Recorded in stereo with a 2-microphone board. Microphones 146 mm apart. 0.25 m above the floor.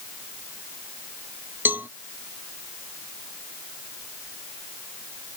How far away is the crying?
No crying in this recording.